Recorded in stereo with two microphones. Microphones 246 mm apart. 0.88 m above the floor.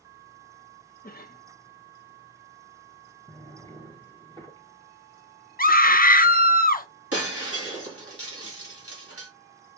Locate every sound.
1.0 s a cough: 35° left (ahead or behind), 0.5 m
3.3 s a drawer: 20° right (ahead or behind), 1.2 m
5.6 s a scream: 35° left (ahead or behind), 0.7 m
7.1 s breaking glass: 65° right (ahead or behind), 2 m